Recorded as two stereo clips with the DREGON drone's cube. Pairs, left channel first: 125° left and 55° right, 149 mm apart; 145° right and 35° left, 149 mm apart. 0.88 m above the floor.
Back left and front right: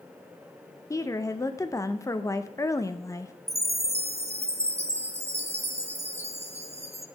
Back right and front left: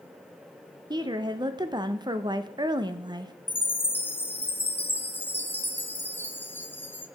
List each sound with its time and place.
0.9 s a woman speaking: 70° left, 0.8 m
3.5 s a chime: 75° right, 0.8 m